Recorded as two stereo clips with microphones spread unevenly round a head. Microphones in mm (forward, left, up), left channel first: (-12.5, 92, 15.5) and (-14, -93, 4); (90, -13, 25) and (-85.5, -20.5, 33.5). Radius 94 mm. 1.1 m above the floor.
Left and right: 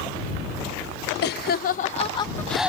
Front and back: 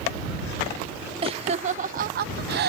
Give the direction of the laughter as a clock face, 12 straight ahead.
8 o'clock.